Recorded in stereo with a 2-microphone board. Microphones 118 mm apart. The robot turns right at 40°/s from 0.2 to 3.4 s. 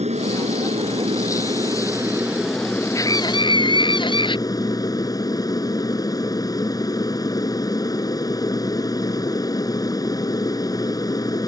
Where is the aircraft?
95° right; by 11.5 s 35° left.